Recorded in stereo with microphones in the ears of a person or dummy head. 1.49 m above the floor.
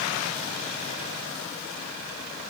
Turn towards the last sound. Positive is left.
No sound to turn to.